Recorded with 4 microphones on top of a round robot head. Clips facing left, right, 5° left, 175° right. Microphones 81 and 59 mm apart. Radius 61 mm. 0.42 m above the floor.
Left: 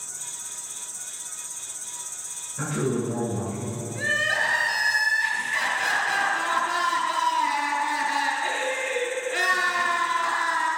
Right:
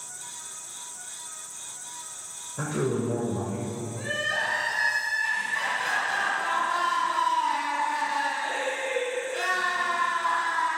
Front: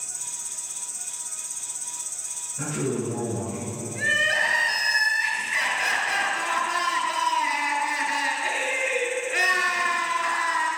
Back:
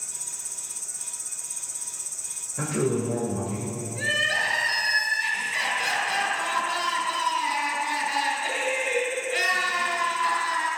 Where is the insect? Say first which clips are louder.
Even, front 2 dB; 145° left, 1.4 m.